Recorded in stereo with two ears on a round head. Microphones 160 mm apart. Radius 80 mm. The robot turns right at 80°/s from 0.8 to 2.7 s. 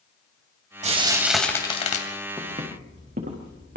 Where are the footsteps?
15° right (ahead or behind), 6 m; by 3.8 s 55° right (ahead or behind), 5.5 m.